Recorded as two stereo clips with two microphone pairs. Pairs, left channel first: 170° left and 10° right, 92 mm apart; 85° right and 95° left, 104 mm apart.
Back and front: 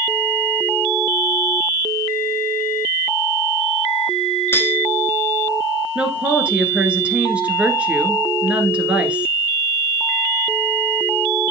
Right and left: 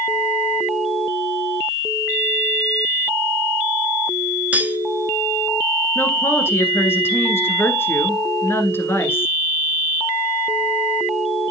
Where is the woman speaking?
65° right, 1.4 m.